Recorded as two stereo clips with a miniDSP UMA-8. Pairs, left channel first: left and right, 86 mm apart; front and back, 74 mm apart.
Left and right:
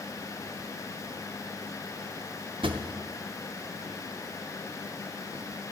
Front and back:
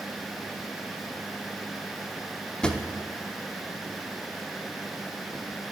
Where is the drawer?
80° right, 0.6 m.